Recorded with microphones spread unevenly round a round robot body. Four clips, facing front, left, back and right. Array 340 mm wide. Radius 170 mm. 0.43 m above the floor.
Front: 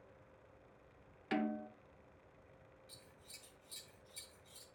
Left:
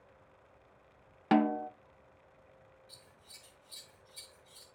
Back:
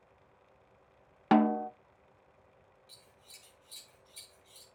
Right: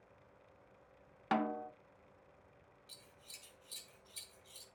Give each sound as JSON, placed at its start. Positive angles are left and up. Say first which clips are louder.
{"t": 1.3, "sound": "a snare drum", "louder": "left 8 dB, back 13 dB", "azimuth_deg": 150, "distance_m": 0.5}
{"t": 2.9, "sound": "scissors", "louder": "left 2 dB, even", "azimuth_deg": -70, "distance_m": 1.6}